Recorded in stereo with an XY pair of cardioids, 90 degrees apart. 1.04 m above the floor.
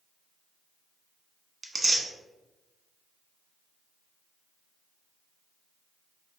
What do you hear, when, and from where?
1.6 s tearing paper: 30° right, 1.0 m